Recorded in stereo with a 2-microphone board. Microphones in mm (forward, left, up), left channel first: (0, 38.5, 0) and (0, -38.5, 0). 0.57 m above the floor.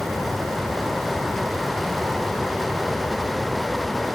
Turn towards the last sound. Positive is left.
No sound to turn to.